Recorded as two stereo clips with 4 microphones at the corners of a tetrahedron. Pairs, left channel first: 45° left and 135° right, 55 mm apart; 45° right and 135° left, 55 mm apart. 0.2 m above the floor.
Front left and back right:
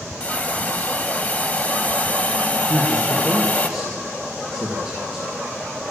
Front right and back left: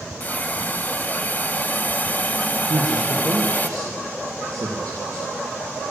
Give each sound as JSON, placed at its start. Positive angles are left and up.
{"t": 0.2, "sound": "a hiss", "azimuth_deg": -5, "distance_m": 1.0}
{"t": 2.7, "sound": "a man speaking", "azimuth_deg": 150, "distance_m": 4.0}